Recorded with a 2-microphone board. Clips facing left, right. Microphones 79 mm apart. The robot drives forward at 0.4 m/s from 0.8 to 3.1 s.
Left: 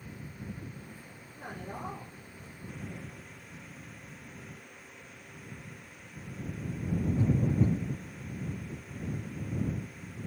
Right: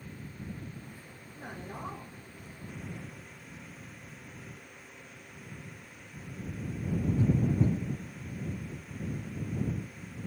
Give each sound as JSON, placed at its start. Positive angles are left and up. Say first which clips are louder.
{"t": 1.3, "sound": "a man speaking", "louder": "left 1 dB", "side_deg": 45, "distance_m": 3.5}